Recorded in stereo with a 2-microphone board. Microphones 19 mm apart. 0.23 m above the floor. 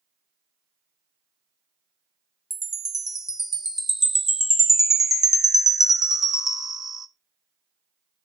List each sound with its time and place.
2.5 s a chime: 25° right (ahead or behind), 0.6 m